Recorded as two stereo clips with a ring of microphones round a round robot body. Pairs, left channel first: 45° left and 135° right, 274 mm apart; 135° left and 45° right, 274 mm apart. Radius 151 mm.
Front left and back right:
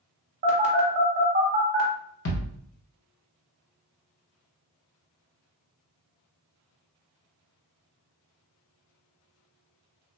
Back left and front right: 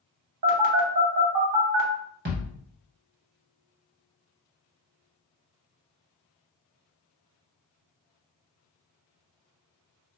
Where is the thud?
10° left, 1.1 m.